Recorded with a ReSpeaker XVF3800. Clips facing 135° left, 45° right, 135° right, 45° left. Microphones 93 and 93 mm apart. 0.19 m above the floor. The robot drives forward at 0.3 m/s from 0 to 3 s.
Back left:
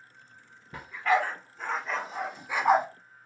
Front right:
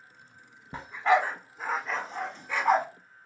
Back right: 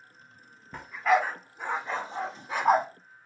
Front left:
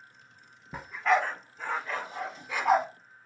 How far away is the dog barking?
About 0.5 m.